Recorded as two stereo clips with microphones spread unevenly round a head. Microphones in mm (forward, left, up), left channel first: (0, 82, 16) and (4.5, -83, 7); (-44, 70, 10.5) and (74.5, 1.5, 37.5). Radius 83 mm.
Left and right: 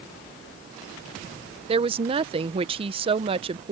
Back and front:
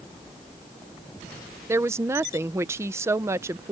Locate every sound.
1.7 s a woman speaking: 105° right